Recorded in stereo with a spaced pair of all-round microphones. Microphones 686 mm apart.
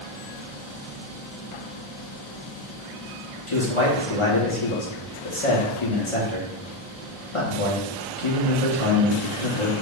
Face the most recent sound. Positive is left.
turn(degrees=45)  # may be behind; listen again after turning